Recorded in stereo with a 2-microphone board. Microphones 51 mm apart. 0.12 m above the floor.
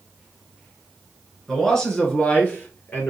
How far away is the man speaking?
About 1.5 m.